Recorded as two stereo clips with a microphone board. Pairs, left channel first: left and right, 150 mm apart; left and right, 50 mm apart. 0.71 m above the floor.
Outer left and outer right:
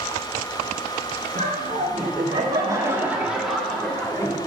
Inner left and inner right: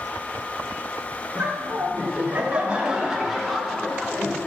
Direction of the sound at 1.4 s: 50° right (ahead or behind).